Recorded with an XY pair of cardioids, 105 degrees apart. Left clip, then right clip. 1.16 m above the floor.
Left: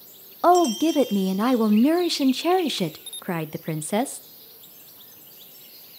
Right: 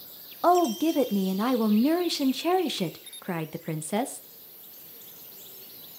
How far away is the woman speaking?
About 0.5 m.